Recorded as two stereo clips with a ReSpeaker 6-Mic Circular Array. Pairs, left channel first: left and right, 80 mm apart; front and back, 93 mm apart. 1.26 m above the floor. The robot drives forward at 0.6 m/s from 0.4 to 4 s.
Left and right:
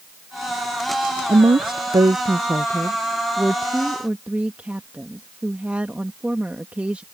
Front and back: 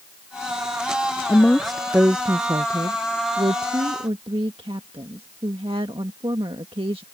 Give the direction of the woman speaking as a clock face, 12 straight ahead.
2 o'clock.